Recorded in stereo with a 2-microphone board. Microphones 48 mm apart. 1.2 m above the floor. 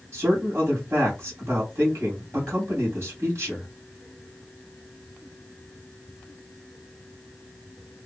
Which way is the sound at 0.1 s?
55° right (ahead or behind).